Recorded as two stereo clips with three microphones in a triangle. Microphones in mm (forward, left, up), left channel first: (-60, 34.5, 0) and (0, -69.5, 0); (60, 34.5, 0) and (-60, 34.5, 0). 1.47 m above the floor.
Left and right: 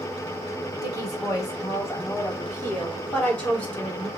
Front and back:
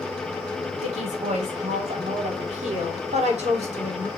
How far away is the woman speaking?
About 5 m.